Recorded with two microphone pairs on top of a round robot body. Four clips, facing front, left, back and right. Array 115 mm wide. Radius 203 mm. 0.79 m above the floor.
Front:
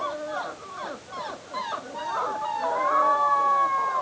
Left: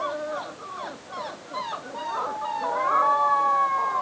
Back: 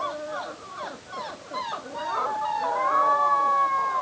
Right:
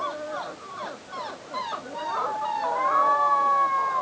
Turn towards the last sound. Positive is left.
No sound to turn to.